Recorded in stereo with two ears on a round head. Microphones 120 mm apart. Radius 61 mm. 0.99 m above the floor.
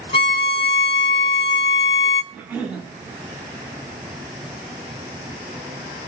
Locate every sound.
0.1 s a violin: 35° left (ahead or behind), 1.1 m
2.3 s a cough: 5° right (ahead or behind), 9 m